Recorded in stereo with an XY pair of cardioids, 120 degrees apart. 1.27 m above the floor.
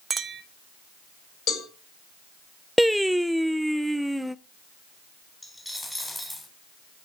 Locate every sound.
0.1 s a clink: 30° right, 1.1 m
1.5 s a cowbell: 70° left, 6.5 m
2.8 s singing: straight ahead, 0.6 m
5.4 s a dropped coin: 10° left, 3 m